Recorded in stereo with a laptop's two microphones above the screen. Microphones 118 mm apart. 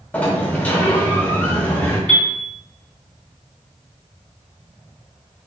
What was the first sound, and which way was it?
A sliding door, 15° left (ahead or behind).